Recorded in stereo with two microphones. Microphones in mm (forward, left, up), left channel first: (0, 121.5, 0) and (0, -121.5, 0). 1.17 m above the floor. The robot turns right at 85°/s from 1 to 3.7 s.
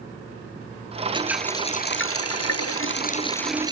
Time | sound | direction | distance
1.1 | a running tap | 20° right | ?